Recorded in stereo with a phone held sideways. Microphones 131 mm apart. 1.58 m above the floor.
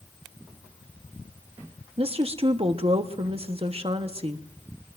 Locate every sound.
2.0 s a woman speaking: 45° right (ahead or behind), 1.1 m